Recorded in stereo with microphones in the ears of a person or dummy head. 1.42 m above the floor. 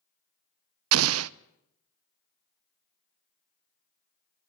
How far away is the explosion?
About 0.6 m.